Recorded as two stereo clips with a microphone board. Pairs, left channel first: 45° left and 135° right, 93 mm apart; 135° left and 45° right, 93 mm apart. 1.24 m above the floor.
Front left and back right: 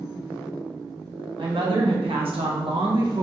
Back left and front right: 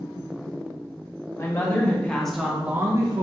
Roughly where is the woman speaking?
Behind.